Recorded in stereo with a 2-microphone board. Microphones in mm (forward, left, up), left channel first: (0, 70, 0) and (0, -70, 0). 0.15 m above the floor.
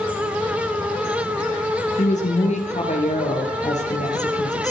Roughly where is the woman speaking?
Left.